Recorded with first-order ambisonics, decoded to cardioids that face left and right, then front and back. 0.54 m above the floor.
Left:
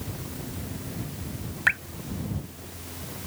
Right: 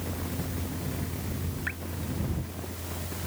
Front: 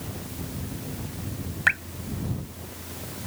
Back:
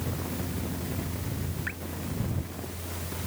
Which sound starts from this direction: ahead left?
Dripping, at 1.7 s.